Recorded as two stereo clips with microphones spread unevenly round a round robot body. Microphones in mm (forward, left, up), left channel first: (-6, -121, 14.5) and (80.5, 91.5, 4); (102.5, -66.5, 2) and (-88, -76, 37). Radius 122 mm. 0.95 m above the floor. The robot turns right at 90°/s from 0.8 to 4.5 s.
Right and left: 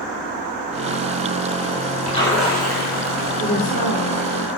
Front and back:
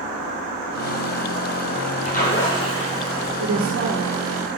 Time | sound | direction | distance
2.1 | a splash | 55° right | 7 m
3.4 | a woman speaking | 175° left | 2 m